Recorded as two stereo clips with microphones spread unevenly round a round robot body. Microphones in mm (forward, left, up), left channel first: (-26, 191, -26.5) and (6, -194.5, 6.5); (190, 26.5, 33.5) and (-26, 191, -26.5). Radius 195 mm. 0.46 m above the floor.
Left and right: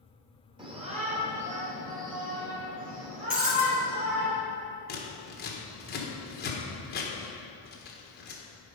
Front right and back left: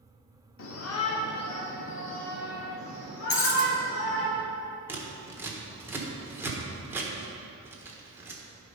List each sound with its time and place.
0.6 s a shout: 10° right, 1.0 m; by 4.3 s 15° right, 3 m
3.3 s breaking glass: straight ahead, 1.8 m
4.9 s scissors: 95° left, 1.3 m